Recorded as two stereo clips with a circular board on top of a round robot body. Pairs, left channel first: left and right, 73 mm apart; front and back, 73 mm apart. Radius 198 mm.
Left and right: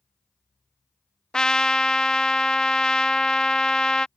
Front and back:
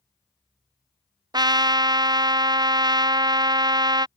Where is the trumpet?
170° left.